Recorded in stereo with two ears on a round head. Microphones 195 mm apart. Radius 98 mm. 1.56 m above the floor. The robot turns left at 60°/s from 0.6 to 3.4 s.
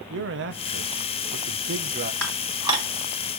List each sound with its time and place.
0.1 s a man speaking: 60° right, 0.7 m; by 2.1 s 150° right, 0.7 m
2.2 s dishes clattering: 5° left (ahead or behind), 1.5 m; by 2.9 s 30° right (ahead or behind), 1.5 m